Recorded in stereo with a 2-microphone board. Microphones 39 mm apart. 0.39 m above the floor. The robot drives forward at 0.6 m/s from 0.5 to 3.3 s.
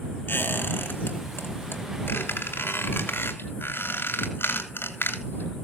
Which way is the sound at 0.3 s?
70° left (ahead or behind).